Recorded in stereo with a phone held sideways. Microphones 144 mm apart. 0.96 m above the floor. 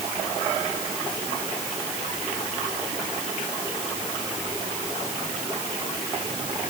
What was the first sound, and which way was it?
Only background noise.